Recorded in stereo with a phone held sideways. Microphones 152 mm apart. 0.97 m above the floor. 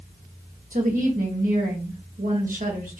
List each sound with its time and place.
0.7 s a woman speaking: 60° right (ahead or behind), 1.6 m